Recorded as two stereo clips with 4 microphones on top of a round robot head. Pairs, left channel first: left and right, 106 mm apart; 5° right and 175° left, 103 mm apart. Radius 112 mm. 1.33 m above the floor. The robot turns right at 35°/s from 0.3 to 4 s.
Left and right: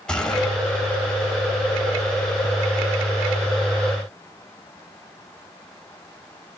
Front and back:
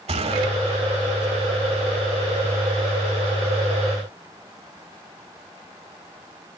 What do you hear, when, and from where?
0.1 s a gunshot: 175° left, 4.5 m; by 0.5 s straight behind, 4.5 m